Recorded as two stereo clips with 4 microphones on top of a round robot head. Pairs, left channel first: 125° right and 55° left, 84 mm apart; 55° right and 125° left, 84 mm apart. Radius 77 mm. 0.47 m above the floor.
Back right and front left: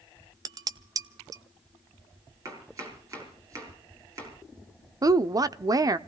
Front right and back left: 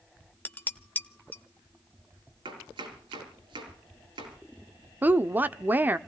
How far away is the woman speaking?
About 1.0 m.